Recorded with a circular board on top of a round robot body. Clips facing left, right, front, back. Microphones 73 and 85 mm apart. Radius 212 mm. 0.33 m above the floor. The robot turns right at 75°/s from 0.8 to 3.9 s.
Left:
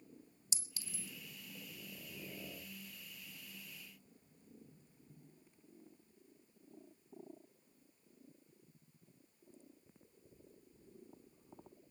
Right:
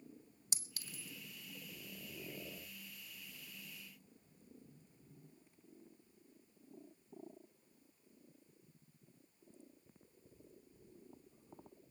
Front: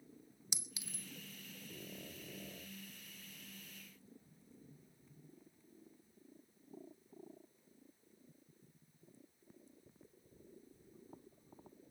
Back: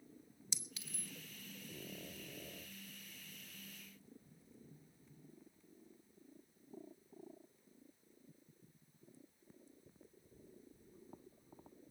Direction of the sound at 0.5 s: 75° right.